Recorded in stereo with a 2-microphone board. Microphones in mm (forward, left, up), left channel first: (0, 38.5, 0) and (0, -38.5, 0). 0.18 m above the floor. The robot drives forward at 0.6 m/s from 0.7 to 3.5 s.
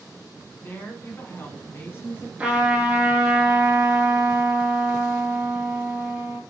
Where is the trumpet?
15° right (ahead or behind), 2 m; by 6.4 s 10° right (ahead or behind), 3 m.